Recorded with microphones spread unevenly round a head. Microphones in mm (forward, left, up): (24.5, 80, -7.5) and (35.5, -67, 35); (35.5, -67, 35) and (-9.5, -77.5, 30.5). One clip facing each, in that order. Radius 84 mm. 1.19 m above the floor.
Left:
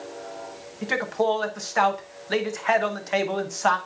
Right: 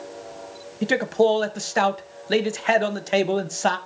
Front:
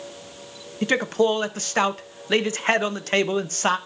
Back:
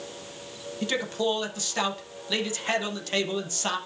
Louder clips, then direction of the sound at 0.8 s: Right 5 dB, front 7 dB; 30° right.